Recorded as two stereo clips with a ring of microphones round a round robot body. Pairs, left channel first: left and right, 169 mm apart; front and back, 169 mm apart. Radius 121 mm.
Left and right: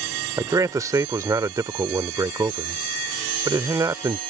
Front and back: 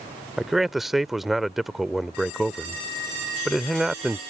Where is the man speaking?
95° right.